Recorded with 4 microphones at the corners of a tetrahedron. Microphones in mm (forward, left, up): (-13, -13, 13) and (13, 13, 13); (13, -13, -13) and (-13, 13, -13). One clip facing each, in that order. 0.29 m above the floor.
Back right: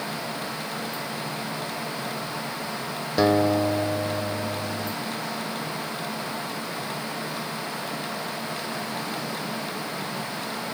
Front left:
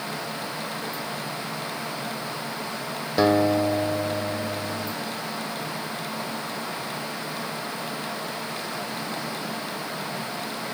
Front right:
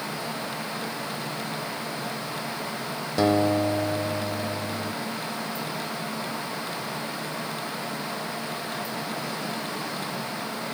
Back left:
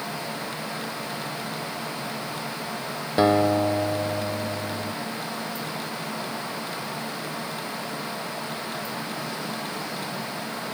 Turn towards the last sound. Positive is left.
turn(degrees=125)